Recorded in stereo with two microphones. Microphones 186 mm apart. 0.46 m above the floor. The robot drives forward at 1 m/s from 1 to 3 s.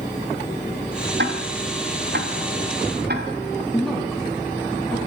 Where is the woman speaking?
Centre (ahead or behind), 4 m.